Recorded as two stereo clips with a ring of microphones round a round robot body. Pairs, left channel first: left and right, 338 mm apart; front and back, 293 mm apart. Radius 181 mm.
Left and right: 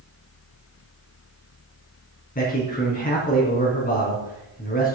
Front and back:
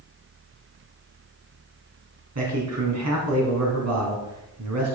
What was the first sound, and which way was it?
A man speaking, 155° left.